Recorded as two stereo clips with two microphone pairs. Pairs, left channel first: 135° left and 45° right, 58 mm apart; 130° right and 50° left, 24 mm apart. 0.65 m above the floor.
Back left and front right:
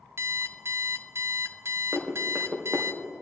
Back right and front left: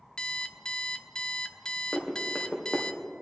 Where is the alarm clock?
75° right, 0.7 m.